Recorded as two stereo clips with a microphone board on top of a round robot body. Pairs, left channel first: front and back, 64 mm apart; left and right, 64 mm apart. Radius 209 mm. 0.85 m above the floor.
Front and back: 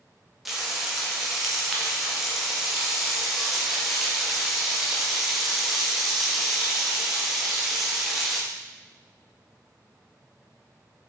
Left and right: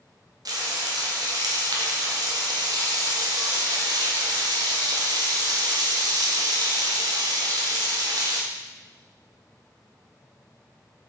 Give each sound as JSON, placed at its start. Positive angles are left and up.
{"t": 0.5, "sound": "frying", "azimuth_deg": -95, "distance_m": 1.6}